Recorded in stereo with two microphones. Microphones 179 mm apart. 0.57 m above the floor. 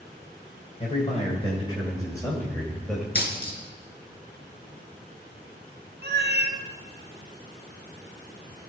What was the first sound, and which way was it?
A man speaking, 40° left (ahead or behind).